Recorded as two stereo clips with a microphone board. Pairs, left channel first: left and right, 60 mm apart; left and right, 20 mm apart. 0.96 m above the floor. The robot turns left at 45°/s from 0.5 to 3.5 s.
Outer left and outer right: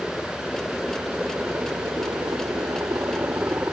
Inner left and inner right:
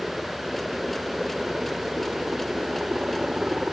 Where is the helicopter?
5° left (ahead or behind); by 3.7 s 35° right (ahead or behind).